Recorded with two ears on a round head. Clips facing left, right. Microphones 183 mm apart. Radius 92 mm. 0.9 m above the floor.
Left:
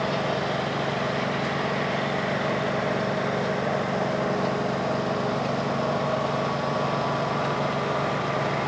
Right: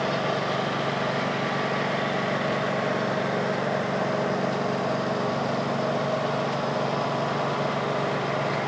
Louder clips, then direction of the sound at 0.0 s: Even; centre (ahead or behind).